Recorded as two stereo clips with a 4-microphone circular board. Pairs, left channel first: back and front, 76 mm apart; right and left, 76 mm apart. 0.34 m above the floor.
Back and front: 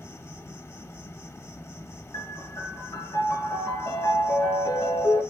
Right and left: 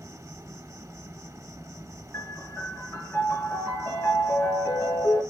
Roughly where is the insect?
Behind left.